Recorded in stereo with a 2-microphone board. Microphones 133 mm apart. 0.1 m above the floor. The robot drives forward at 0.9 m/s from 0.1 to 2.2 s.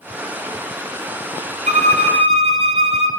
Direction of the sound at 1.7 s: 65° right (ahead or behind).